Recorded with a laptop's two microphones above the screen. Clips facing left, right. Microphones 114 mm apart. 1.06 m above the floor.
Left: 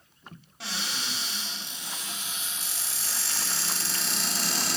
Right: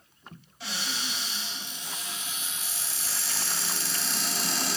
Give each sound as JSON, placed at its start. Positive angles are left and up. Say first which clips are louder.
{"t": 0.6, "sound": "a cupboard door", "louder": "even", "side_deg": 70, "distance_m": 1.2}